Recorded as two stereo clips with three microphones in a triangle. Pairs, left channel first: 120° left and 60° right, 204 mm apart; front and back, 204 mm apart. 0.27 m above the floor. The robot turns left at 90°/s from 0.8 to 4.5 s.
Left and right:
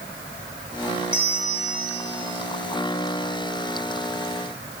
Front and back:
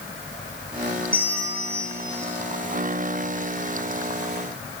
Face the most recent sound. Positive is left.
turn(degrees=80)